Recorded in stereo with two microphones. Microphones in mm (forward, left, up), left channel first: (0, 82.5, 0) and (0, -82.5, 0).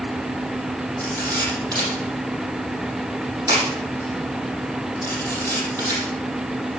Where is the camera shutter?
25° right (ahead or behind), 7 m.